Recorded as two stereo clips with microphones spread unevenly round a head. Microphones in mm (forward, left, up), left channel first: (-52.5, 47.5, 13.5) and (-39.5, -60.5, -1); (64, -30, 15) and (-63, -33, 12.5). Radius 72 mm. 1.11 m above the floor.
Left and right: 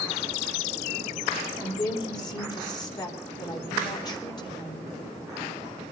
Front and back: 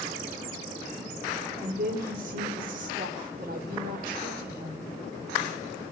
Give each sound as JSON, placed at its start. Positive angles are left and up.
{"t": 1.6, "sound": "a woman speaking", "azimuth_deg": 150, "distance_m": 3.0}